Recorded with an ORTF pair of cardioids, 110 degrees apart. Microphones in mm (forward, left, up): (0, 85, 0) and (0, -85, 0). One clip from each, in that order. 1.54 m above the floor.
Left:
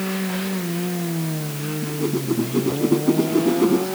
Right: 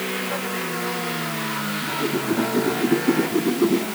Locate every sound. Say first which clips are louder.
1.8 s a whoosh: left 1 dB; 10° left